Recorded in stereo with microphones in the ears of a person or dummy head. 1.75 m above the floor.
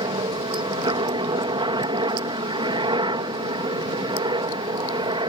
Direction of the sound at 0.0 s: 15° right (ahead or behind).